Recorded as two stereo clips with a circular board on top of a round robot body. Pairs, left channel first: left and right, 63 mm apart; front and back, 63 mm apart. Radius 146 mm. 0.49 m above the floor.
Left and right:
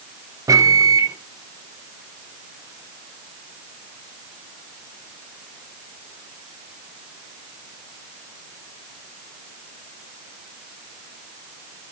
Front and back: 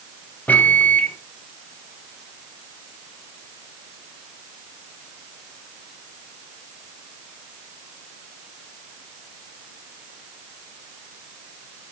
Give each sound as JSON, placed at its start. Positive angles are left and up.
{"t": 0.5, "sound": "a microwave", "azimuth_deg": -65, "distance_m": 1.3}